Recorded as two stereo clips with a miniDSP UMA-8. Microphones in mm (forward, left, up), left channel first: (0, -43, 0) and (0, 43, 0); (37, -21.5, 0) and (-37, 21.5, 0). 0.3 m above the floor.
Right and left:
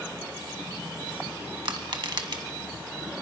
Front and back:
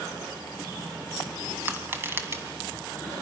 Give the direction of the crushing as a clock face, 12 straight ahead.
9 o'clock.